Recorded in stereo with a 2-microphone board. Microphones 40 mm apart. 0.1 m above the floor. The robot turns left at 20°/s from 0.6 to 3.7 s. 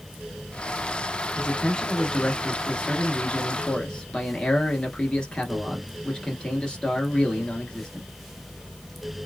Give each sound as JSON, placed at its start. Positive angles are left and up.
{"t": 1.4, "sound": "a man speaking", "side_deg": 20, "distance_m": 1.2}